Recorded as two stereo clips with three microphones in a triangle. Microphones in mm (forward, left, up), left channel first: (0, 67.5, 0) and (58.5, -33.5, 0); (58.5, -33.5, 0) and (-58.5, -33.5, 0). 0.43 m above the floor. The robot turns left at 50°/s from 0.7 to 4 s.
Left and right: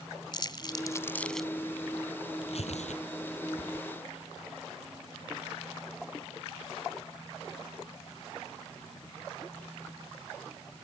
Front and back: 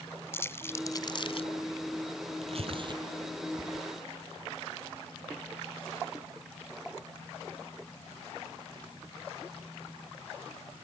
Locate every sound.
0.3 s crumpling: 70° left; by 1.5 s 30° left
2.4 s tearing paper: 155° left; by 3.9 s 85° left